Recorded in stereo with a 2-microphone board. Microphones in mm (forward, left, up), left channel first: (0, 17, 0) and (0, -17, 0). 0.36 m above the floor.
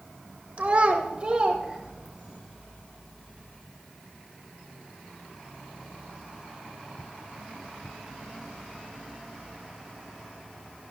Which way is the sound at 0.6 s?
40° right (ahead or behind).